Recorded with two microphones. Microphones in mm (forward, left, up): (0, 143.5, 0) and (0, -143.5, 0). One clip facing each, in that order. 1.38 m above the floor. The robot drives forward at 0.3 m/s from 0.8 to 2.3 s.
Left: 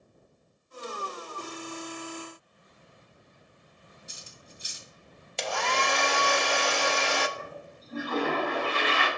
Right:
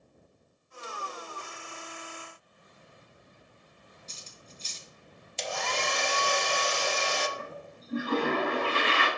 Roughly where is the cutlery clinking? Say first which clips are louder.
Even; centre.